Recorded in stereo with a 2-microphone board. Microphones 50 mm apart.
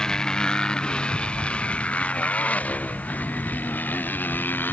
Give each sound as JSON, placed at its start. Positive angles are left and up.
{"t": 0.0, "sound": "a motorcycle", "side_deg": 15}